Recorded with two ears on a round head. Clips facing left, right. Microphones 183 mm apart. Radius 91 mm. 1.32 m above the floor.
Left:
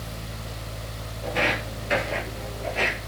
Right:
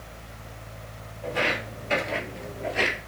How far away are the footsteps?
About 1.7 m.